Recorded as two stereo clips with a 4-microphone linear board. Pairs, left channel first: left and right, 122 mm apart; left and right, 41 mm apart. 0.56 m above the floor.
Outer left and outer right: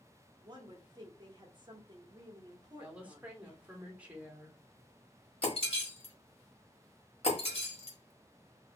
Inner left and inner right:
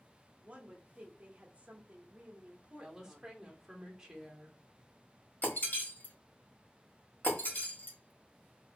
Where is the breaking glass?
55° left (ahead or behind), 1.3 m.